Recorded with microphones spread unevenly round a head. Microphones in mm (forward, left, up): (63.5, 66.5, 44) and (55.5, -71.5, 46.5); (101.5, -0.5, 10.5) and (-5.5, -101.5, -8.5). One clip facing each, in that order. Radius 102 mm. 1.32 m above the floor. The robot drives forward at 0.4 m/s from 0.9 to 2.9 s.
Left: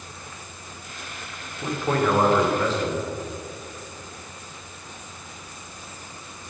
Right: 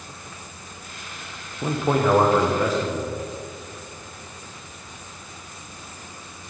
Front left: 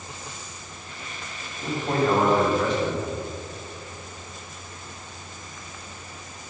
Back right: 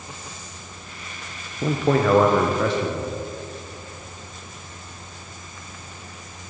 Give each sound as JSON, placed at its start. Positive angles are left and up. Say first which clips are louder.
{"t": 1.6, "sound": "a man speaking", "louder": "right 2 dB, back right 4 dB", "azimuth_deg": -170, "distance_m": 0.5}